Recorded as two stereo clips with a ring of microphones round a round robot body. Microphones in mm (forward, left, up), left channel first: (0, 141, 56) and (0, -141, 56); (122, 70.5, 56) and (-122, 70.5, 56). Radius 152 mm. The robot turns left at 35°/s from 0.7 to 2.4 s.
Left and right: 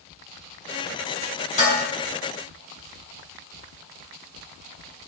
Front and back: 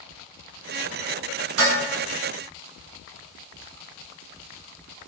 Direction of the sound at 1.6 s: 155° left.